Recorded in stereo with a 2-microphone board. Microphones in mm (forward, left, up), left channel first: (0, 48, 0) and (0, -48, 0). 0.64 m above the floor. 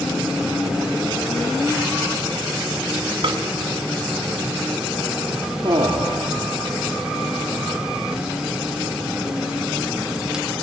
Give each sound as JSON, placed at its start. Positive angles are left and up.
{"t": 3.2, "sound": "a snare drum", "side_deg": -65, "distance_m": 1.9}
{"t": 5.6, "sound": "a man speaking", "side_deg": -50, "distance_m": 1.5}